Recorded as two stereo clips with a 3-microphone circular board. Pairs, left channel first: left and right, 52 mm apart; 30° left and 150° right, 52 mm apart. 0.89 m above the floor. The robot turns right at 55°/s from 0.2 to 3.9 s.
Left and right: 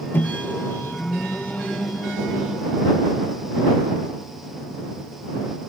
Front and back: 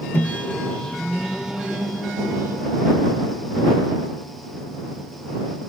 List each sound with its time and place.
0.1 s a microwave: 65° left; by 2.6 s 160° right